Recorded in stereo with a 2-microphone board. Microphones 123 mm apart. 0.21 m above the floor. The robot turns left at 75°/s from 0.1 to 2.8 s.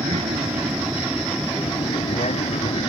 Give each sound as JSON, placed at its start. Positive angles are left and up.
{"t": 0.0, "sound": "an aircraft", "azimuth_deg": -100}